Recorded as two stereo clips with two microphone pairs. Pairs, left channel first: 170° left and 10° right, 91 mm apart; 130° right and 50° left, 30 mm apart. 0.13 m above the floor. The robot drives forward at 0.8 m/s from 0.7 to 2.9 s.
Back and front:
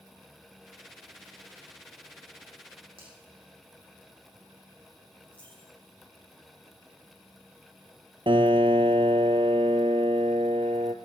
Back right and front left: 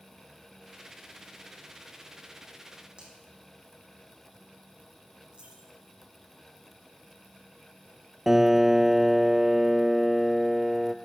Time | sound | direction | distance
3.0 | a finger snap | 10° right | 5.5 m
5.3 | a dropped coin | 95° left | 6 m
8.3 | a piano | 30° right | 0.6 m